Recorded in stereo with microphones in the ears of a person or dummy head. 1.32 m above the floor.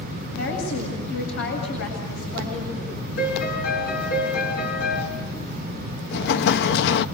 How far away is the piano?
About 6.5 m.